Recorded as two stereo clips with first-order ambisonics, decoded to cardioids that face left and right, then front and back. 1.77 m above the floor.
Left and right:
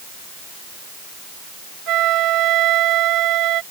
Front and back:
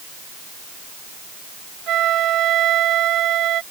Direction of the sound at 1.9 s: 130° right.